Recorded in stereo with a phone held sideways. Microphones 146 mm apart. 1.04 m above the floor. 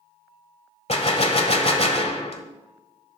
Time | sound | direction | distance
0.9 | a gunshot | 45° left (ahead or behind) | 1.3 m